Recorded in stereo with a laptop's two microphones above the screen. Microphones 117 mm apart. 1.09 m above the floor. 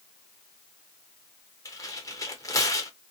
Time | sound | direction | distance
1.6 | tearing paper | 30° left (ahead or behind) | 1.0 m